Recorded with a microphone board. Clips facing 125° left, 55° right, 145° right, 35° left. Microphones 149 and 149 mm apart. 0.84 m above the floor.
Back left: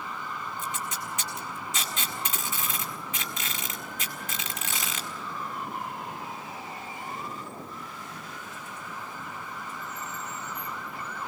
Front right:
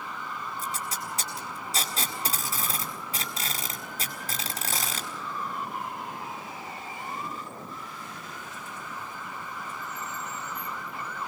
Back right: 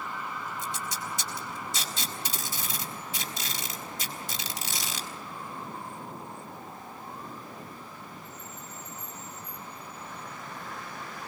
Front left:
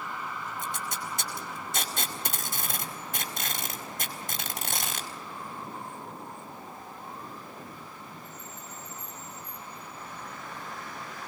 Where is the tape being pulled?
Straight ahead, 4.5 m.